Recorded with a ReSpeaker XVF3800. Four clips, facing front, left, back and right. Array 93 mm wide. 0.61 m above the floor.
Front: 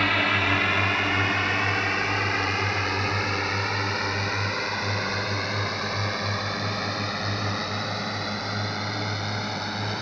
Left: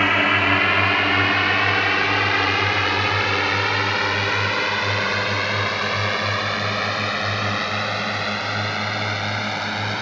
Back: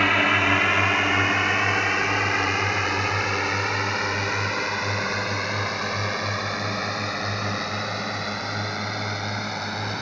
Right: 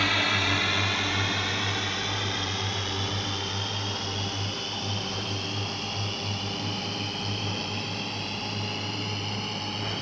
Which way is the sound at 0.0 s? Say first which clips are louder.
Left 8 dB, back 3 dB; 110° left.